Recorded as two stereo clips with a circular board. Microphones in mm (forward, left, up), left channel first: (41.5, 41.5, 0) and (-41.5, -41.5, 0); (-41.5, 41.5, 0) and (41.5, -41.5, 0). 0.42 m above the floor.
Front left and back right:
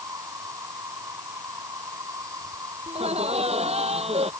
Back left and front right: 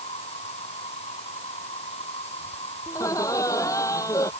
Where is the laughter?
165° right.